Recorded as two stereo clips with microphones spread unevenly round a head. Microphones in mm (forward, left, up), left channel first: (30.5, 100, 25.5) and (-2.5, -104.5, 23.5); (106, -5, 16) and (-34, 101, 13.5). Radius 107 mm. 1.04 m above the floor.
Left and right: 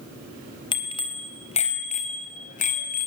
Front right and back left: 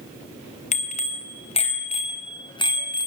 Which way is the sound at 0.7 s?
10° left.